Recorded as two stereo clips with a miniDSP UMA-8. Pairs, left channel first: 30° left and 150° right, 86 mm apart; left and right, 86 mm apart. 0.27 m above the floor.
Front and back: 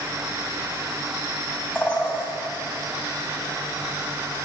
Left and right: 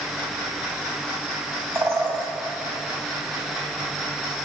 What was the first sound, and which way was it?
A bird, 35° right.